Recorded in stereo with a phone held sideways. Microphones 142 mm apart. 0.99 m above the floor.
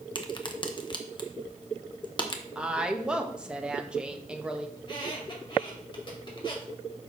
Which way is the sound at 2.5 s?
5° right (ahead or behind).